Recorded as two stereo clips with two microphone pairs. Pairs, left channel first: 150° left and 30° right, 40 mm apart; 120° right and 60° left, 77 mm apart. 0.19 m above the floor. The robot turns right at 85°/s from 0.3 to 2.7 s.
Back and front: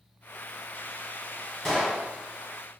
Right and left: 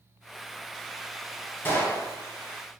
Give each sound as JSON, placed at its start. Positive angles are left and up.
{"t": 1.6, "sound": "a gunshot", "azimuth_deg": -135, "distance_m": 0.9}